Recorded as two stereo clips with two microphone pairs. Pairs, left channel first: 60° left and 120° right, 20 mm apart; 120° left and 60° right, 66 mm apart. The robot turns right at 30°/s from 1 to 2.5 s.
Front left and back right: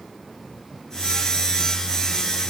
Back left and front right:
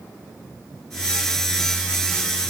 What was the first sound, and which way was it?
Only background noise.